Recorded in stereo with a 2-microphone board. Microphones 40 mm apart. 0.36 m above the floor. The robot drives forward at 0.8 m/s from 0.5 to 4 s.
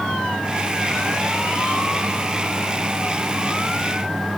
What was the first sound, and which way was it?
Only background noise.